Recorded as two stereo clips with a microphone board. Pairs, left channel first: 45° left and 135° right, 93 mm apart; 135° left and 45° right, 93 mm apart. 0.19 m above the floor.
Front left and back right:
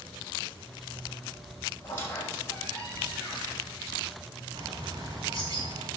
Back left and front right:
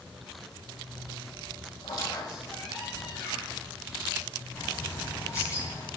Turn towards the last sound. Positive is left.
turn(degrees=-175)